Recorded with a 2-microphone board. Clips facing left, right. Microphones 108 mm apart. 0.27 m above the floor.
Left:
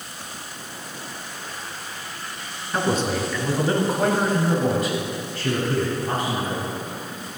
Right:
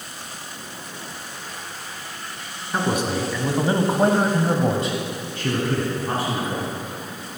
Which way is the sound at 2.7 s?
10° right (ahead or behind).